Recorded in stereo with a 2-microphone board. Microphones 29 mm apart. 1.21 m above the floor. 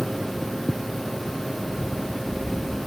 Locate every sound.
1.6 s running footsteps: 15° right (ahead or behind), 1.6 m; by 2.9 s 20° left (ahead or behind), 1.3 m